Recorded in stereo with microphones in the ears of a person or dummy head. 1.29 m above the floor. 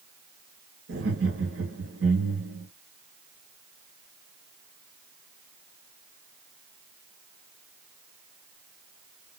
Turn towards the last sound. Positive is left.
turn(degrees=-70)  # may be behind; listen again after turning